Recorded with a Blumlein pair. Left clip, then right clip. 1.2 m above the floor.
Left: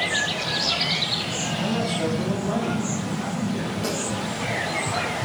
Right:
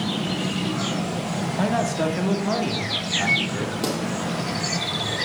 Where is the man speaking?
55° right, 1.8 m; by 3.7 s 70° right, 3 m.